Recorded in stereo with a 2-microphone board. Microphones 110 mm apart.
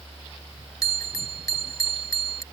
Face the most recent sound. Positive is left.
turn(degrees=30)  # may be behind; listen again after turning